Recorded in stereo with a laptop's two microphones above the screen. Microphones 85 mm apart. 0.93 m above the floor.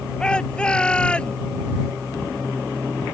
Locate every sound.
0.2 s a shout: 10° left (ahead or behind); by 1.4 s 15° left (ahead or behind)